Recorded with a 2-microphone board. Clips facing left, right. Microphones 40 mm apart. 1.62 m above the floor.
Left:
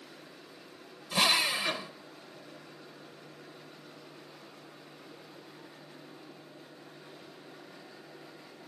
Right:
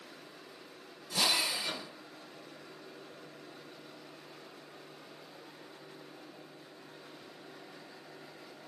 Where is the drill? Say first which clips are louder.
Left 4 dB; 40° left (ahead or behind), 1.0 m.